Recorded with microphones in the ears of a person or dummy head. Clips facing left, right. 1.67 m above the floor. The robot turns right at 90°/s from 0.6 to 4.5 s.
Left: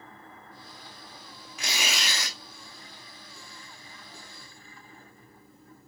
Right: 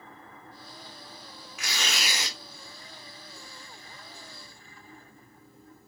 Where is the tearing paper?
145° left, 0.8 m; by 2.4 s 150° right, 0.8 m.